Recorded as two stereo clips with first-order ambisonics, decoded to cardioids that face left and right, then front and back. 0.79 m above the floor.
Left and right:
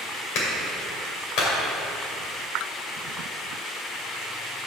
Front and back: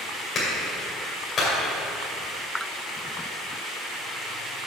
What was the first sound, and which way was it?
A clap, 65° left.